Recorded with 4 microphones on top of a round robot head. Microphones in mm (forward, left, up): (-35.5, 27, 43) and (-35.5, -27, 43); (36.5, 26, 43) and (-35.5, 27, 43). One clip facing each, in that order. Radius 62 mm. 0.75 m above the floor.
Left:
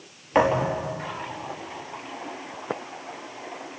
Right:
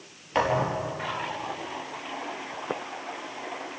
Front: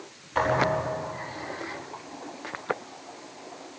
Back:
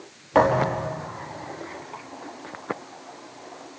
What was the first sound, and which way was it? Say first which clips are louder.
A thud: left 4 dB, back 4 dB; 160° left.